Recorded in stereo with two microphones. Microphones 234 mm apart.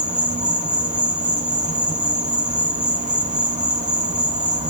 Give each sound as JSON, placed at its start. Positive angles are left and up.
{"t": 0.0, "sound": "an insect", "side_deg": -30, "distance_m": 0.8}